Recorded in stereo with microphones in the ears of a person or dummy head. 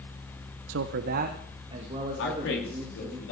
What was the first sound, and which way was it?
A man speaking, 80° right.